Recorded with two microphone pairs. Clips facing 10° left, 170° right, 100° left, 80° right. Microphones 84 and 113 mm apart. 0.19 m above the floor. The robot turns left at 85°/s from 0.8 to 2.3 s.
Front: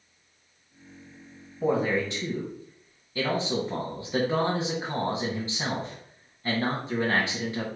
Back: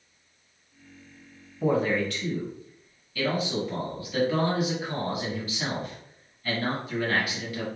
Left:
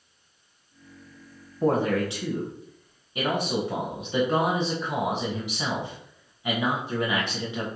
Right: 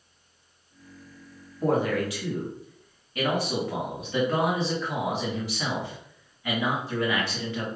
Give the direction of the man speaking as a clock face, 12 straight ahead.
9 o'clock.